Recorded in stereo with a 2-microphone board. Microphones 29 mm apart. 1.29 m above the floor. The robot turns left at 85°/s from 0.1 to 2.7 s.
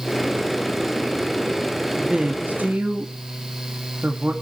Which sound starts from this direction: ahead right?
A woman speaking, at 2.0 s.